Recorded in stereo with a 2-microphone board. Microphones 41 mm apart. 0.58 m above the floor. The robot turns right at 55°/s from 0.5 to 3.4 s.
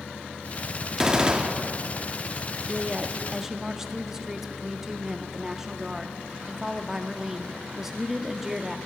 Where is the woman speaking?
25° right (ahead or behind), 0.6 m; by 8.8 s 10° right (ahead or behind), 0.6 m.